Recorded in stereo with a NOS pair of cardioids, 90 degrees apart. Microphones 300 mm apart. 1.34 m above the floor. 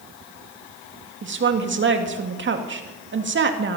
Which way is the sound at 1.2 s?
40° right.